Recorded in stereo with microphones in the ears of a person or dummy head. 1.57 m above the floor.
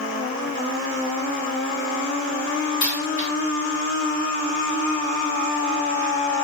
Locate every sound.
2.8 s a dropped coin: 30° left (ahead or behind), 1.1 m